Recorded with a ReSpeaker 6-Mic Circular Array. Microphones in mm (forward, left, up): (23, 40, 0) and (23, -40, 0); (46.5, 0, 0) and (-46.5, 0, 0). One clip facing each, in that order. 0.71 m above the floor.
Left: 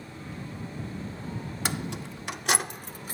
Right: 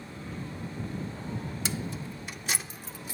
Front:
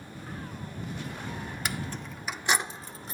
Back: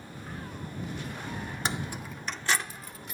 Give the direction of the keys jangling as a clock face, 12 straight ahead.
8 o'clock.